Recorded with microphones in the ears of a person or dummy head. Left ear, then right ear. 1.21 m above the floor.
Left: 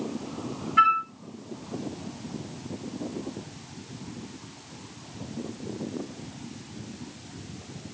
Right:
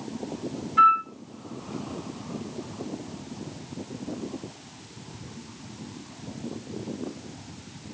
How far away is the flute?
About 1.6 m.